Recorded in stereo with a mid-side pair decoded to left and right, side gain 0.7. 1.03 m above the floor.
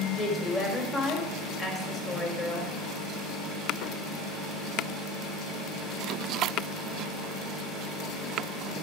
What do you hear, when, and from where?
0.1 s a woman speaking: 25° left, 3.5 m